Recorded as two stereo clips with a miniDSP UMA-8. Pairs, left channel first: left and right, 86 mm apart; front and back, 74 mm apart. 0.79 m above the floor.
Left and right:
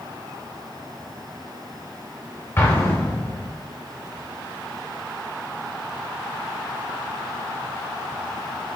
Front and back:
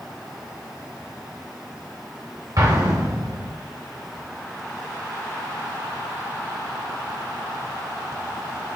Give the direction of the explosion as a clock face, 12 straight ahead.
7 o'clock.